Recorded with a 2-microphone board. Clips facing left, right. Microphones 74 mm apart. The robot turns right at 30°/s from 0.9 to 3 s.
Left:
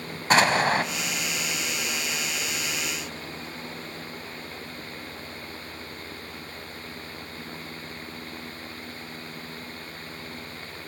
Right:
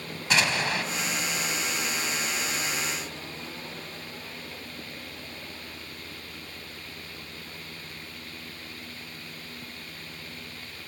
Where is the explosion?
40° left (ahead or behind), 0.8 m.